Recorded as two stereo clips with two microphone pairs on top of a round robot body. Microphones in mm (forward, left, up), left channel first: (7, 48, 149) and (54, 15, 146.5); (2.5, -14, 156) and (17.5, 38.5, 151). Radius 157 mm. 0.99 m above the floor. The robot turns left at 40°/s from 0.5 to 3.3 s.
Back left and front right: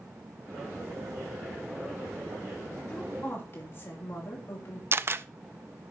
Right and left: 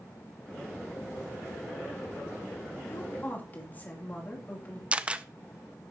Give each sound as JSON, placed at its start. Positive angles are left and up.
{"t": 2.9, "sound": "a woman speaking", "azimuth_deg": -150, "distance_m": 3.0}
{"t": 4.9, "sound": "a camera shutter", "azimuth_deg": 10, "distance_m": 0.6}